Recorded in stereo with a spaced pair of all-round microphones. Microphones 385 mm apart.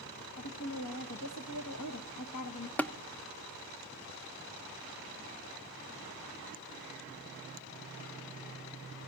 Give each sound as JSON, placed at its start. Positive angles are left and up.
{"t": 0.4, "sound": "a woman speaking", "side_deg": 60, "distance_m": 1.2}
{"t": 2.8, "sound": "tapping", "side_deg": 5, "distance_m": 0.6}